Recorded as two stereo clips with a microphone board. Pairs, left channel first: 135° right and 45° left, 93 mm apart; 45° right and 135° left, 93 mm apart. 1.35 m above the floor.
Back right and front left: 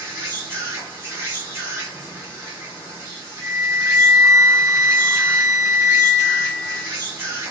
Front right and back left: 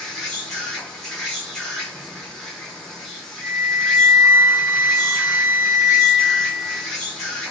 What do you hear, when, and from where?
0.0 s an insect: 40° left, 1.0 m
3.4 s a flute: 90° right, 0.9 m